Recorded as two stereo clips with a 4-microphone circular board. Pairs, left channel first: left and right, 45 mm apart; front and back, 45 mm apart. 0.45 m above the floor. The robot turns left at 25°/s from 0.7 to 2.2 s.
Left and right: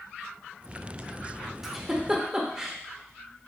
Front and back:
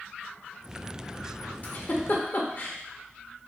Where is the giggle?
5° right, 0.7 m; by 2.8 s 20° right, 0.7 m.